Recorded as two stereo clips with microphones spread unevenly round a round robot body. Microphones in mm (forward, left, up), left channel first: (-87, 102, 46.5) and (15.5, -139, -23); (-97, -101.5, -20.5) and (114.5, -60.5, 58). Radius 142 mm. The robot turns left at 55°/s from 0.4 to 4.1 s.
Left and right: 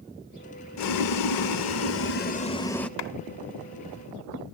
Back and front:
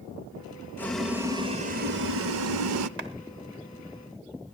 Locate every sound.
0.8 s boiling: 130° left, 0.7 m; by 2.9 s 15° left, 0.7 m
3.0 s a clap: 70° left, 1.3 m; by 3.1 s 60° left, 1.3 m